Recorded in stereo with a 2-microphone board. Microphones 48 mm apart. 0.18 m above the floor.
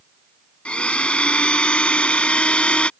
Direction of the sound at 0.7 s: 25° left (ahead or behind).